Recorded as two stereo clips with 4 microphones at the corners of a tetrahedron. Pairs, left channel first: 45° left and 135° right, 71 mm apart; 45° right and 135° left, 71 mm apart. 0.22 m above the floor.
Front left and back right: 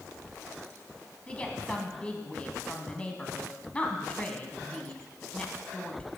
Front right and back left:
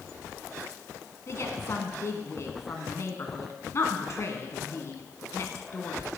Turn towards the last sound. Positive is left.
turn(degrees=-20)